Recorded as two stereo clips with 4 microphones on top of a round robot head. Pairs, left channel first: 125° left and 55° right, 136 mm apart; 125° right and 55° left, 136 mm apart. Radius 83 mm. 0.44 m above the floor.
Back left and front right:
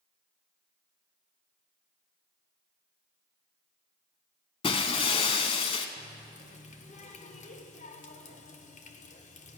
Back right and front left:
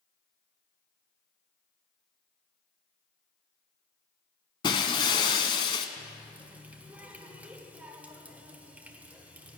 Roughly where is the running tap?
Behind left.